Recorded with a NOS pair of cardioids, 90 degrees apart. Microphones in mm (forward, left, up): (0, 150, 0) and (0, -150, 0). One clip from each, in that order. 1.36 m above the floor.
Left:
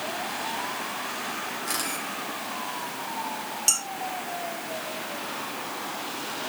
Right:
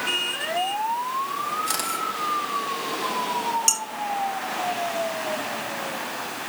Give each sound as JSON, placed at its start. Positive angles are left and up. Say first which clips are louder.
{"t": 1.7, "sound": "a camera shutter", "louder": "right 4 dB", "azimuth_deg": -40, "distance_m": 3.5}
{"t": 3.7, "sound": "dishes clattering", "louder": "left 1 dB", "azimuth_deg": -35, "distance_m": 4.5}